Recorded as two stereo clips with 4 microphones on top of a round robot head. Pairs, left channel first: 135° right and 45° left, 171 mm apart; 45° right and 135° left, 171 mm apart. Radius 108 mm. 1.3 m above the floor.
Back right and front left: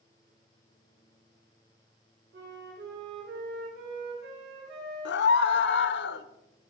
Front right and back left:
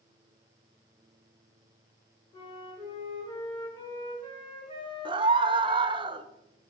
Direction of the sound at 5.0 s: 160° right.